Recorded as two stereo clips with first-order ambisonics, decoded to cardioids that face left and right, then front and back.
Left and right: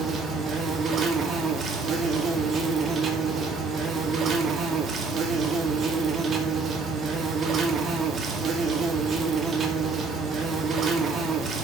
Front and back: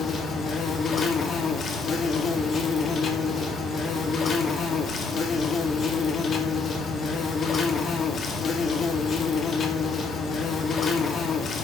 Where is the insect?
45° right, 2 m.